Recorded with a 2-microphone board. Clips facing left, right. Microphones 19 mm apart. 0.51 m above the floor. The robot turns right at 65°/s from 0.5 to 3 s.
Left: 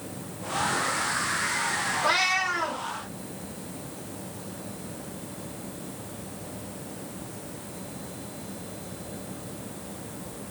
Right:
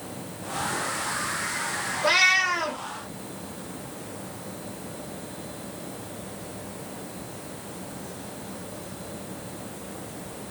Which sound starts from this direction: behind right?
A cat meowing, at 2.0 s.